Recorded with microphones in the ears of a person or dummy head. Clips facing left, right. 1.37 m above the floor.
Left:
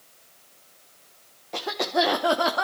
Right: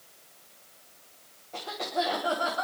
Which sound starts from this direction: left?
A cough, at 1.5 s.